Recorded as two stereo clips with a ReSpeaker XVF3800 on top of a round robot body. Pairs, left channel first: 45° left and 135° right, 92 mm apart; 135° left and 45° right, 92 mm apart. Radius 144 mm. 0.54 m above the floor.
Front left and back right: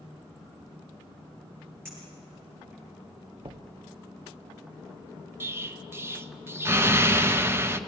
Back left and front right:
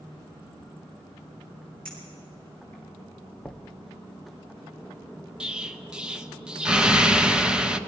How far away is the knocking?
About 0.8 m.